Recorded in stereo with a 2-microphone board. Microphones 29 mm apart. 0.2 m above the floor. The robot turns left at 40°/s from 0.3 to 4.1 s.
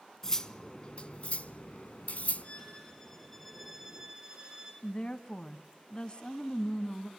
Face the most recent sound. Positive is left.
turn(degrees=30)  # may be behind; listen again after turning